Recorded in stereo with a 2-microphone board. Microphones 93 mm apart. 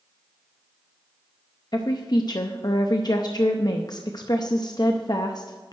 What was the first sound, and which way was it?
A woman speaking, 45° left (ahead or behind).